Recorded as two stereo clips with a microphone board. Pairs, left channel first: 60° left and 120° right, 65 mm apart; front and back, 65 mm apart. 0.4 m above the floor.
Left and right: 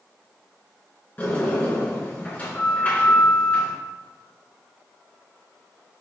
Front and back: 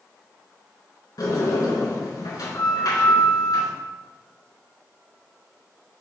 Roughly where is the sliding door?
Ahead.